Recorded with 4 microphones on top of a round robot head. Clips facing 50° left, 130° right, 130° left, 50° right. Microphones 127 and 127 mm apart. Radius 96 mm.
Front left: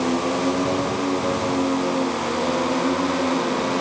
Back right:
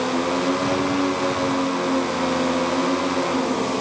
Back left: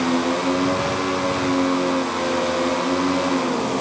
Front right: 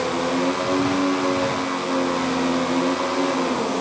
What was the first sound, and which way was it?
Only background noise.